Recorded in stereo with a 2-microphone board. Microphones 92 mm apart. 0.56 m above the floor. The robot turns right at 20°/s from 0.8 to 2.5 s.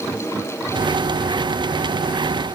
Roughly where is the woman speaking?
I don't hear a woman speaking.